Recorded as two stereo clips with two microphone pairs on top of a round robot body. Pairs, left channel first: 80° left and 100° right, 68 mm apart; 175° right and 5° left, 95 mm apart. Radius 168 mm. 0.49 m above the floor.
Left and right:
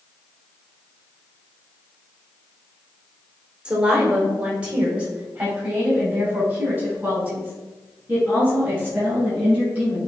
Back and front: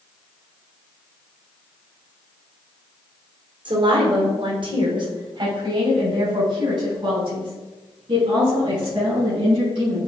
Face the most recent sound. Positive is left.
turn(degrees=-35)